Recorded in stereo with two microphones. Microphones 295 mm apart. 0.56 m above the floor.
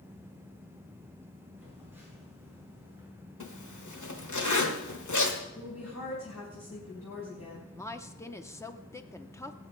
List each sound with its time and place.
1.6 s a phone buzzing: 5° right (ahead or behind), 6.5 m
3.4 s a zipper: 70° left (ahead or behind), 1.4 m
5.5 s a woman speaking: 60° left (ahead or behind), 3.5 m
7.8 s a woman speaking: 10° left (ahead or behind), 0.7 m